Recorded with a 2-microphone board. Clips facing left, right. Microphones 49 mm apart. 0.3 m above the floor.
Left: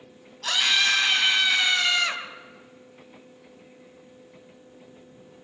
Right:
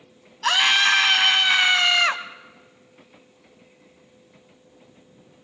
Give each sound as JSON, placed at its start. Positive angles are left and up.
{"t": 0.4, "sound": "a scream", "side_deg": -60, "distance_m": 1.9}